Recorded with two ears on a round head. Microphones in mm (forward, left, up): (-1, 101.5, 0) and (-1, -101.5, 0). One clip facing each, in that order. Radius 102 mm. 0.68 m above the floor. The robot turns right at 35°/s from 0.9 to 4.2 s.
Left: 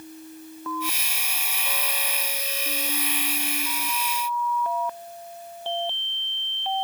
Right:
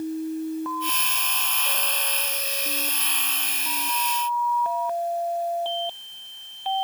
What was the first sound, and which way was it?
Only background noise.